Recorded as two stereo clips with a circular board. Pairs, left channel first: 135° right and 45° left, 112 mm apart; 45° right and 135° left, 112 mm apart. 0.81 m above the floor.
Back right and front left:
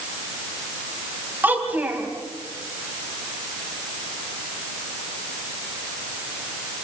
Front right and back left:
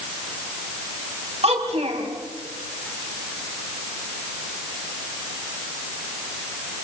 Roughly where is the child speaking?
Behind left.